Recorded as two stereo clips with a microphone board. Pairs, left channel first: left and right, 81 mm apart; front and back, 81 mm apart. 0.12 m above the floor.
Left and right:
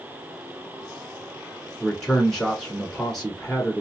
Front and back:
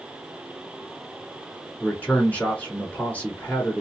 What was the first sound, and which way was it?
A man speaking, 10° left.